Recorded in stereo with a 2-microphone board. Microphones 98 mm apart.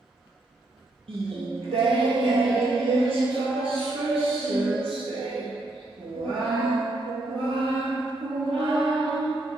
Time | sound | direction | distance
1.1 | singing | 75° right (ahead or behind) | 1.1 m